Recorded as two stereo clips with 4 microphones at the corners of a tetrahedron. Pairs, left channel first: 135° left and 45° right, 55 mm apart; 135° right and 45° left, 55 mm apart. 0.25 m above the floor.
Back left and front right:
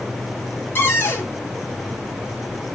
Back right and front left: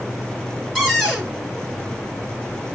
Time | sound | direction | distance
0.8 | a cupboard door | 135° left | 2 m